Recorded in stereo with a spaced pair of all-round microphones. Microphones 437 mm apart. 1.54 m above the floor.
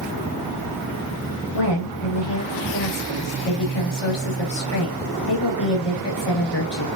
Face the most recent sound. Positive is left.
turn(degrees=70)  # may be behind; listen again after turning